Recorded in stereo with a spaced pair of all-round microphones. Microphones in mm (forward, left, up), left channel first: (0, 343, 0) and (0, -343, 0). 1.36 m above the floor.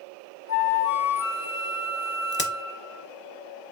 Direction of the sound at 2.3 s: 20° left (ahead or behind).